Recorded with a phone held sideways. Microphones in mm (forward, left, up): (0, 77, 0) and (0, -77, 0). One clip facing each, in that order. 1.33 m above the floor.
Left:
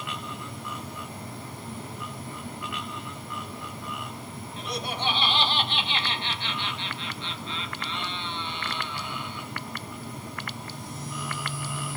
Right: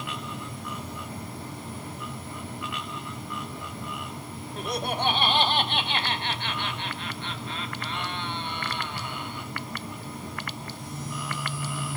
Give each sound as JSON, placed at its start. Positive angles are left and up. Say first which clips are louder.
{"t": 4.6, "sound": "laughter", "louder": "right 4 dB", "side_deg": -55, "distance_m": 1.5}